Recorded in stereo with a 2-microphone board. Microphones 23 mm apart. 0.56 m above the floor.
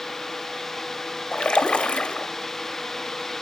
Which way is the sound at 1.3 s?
55° left (ahead or behind).